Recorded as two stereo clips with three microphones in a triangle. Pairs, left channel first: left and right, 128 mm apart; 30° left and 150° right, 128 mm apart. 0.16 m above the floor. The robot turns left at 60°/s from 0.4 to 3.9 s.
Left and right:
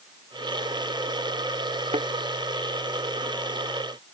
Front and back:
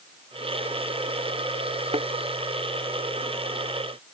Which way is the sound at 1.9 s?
115° right.